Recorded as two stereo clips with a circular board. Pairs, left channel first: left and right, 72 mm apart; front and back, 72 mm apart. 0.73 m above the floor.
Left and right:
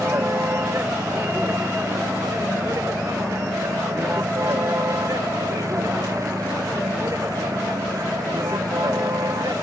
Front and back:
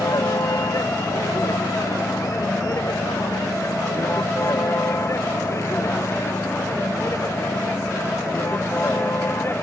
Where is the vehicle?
35° right; by 9.6 s 55° right.